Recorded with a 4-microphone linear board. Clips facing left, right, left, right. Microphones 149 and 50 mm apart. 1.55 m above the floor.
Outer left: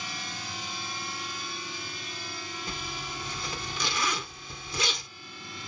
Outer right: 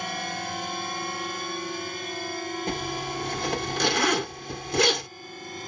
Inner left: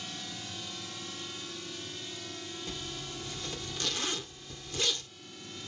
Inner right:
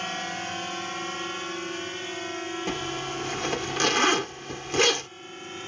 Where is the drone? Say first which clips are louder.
Outer right 8 dB, inner right 11 dB; 60° right (ahead or behind); by 5.7 s 45° right (ahead or behind).